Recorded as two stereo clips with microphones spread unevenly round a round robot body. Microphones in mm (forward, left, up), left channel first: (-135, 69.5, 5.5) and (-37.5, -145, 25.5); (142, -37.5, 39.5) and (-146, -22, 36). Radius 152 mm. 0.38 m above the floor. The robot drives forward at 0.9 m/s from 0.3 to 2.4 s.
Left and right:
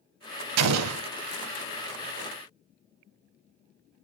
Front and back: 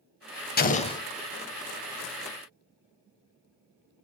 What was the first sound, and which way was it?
An explosion, 60° right.